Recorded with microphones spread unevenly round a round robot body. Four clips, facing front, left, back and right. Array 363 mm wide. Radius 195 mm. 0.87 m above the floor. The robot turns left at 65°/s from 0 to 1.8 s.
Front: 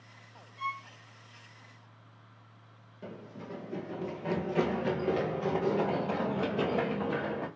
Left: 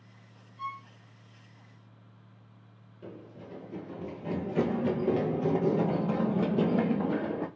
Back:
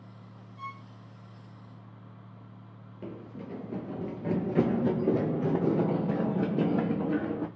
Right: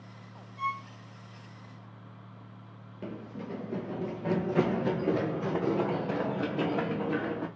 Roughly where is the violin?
Behind right.